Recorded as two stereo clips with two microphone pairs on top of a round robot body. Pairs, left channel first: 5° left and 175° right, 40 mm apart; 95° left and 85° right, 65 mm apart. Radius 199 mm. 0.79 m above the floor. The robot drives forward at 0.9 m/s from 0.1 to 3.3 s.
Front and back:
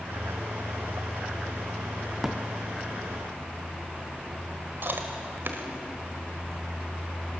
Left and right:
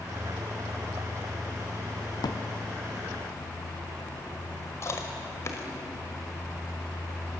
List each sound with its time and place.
2.2 s a drawer: 95° left, 0.9 m; by 2.4 s 110° left, 1.0 m
4.8 s chewing: 150° left, 1.3 m